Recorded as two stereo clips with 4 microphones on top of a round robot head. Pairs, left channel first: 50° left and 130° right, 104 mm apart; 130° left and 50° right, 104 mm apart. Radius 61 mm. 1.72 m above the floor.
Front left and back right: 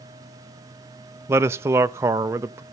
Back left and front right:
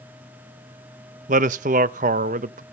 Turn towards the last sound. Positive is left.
turn(degrees=-60)